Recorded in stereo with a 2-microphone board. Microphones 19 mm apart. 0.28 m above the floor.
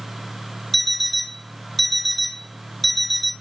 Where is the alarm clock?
10° left (ahead or behind), 1.0 m.